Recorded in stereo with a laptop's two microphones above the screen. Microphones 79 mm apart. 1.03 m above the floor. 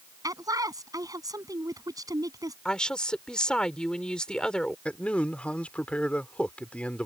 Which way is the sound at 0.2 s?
50° right (ahead or behind).